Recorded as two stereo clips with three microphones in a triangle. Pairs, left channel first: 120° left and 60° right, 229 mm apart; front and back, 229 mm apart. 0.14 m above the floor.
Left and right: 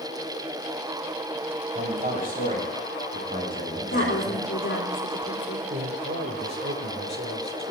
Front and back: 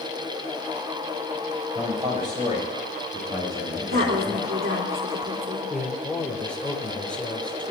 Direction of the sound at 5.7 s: 85° right.